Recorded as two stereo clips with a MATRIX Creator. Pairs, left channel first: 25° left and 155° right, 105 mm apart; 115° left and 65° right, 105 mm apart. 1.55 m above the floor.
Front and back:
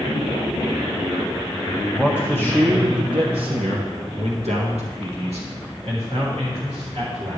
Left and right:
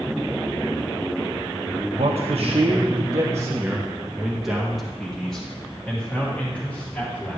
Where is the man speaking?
70° right, 1.0 m; by 7.4 s 175° right, 3.5 m.